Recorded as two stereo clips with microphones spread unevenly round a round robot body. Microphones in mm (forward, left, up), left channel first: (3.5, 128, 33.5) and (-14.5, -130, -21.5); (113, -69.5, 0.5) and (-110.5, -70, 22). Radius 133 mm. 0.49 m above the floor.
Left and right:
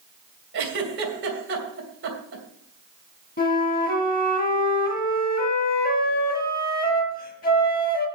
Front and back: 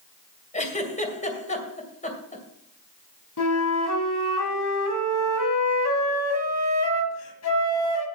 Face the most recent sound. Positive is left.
turn(degrees=25)